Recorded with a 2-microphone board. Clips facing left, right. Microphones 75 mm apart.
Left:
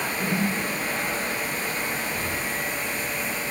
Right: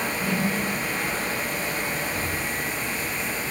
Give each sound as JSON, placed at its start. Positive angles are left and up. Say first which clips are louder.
{"t": 0.2, "sound": "a whoosh", "louder": "left 1 dB", "side_deg": 25, "distance_m": 1.3}